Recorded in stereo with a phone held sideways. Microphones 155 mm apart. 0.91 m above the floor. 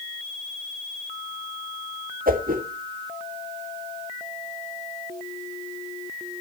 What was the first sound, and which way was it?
A whoosh, 65° right (ahead or behind).